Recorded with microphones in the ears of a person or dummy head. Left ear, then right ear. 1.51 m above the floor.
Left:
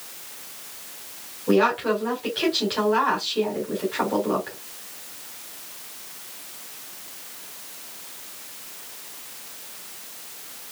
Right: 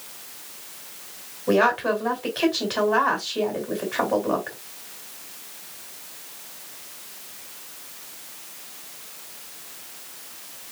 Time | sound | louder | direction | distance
1.5 | a woman speaking | right 1 dB | 20° right (ahead or behind) | 2.0 m